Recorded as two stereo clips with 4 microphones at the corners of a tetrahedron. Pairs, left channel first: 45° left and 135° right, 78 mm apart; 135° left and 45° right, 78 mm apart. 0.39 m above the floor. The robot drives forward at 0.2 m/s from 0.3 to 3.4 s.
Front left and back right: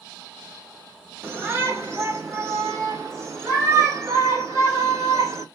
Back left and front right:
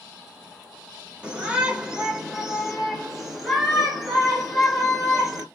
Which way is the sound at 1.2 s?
105° right.